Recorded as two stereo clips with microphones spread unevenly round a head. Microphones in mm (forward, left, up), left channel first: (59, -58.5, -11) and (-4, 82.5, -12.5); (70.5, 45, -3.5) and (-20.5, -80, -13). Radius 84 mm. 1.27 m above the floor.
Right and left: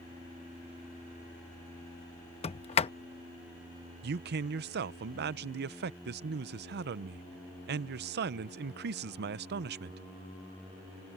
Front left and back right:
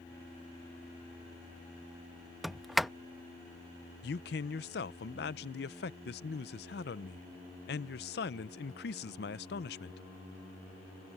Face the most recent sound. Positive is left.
turn(degrees=90)